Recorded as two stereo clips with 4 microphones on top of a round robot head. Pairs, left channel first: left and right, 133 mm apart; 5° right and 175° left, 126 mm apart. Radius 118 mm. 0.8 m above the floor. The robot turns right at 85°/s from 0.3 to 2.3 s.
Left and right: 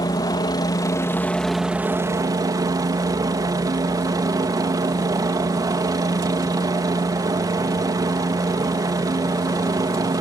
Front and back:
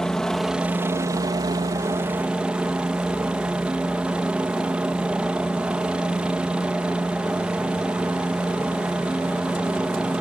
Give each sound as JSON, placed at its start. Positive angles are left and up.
{"t": 0.0, "sound": "a helicopter", "azimuth_deg": 75}